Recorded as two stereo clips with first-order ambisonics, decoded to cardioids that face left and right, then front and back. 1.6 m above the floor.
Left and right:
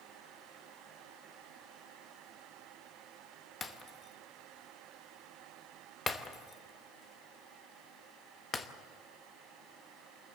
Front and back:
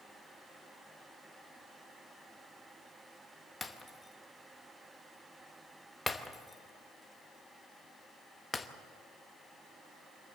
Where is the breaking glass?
60° left, 0.9 m.